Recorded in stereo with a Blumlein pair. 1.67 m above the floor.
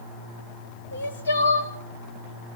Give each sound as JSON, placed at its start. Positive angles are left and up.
{"t": 0.9, "sound": "crying", "azimuth_deg": 65, "distance_m": 1.8}